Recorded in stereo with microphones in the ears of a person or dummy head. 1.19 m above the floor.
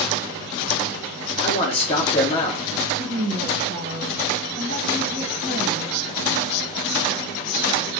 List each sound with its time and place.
1.4 s a man speaking: 30° left (ahead or behind), 0.9 m
3.0 s a woman speaking: 50° right (ahead or behind), 1.3 m